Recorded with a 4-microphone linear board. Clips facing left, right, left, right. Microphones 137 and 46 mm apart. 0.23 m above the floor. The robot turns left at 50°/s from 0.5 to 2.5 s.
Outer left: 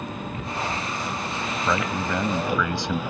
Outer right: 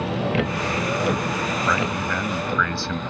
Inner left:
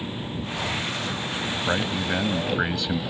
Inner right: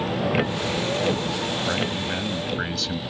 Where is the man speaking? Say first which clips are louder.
Outer left 3 dB, inner left 1 dB; 20° left (ahead or behind); by 3.0 s 15° left (ahead or behind).